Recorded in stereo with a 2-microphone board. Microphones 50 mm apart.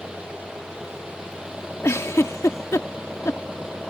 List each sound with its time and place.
0.0 s an engine running: 15° right (ahead or behind)
1.8 s a giggle: 65° left (ahead or behind)